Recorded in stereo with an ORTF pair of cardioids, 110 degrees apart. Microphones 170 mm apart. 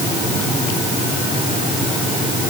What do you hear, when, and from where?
Only background noise.